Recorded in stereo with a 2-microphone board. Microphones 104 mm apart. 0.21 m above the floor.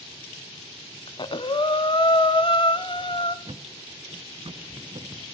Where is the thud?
60° right (ahead or behind), 0.8 m.